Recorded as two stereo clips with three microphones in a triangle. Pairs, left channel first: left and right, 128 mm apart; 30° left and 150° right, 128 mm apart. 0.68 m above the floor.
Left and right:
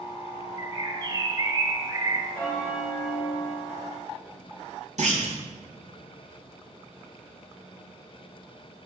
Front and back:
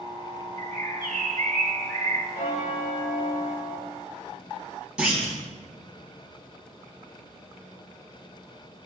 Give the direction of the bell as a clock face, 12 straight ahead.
12 o'clock.